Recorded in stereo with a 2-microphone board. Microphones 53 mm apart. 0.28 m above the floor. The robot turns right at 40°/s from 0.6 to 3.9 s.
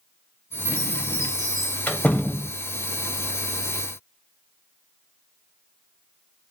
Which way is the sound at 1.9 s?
30° left (ahead or behind).